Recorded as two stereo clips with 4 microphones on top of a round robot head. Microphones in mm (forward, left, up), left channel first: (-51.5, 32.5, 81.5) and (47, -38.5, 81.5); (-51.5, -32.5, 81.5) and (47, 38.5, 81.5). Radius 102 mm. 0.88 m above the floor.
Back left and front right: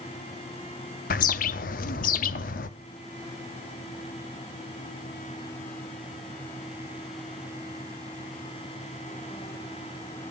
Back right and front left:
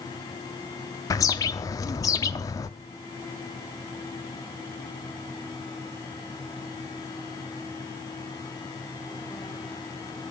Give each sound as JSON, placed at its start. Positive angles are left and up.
{"t": 1.1, "sound": "a bird", "azimuth_deg": 150, "distance_m": 0.6}